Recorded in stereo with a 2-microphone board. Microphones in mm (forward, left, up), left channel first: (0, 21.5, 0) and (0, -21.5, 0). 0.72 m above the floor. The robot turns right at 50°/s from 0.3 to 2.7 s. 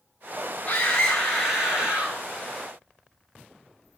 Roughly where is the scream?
Behind left.